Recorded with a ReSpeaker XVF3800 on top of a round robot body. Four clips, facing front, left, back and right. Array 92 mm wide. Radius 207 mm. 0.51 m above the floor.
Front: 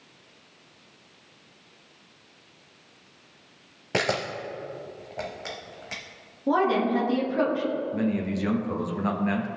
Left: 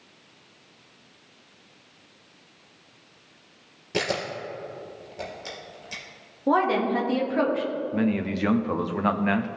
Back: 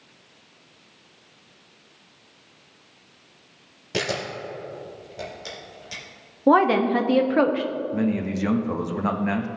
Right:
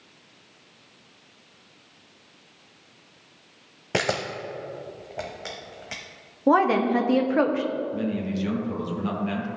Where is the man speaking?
110° left, 1.0 m.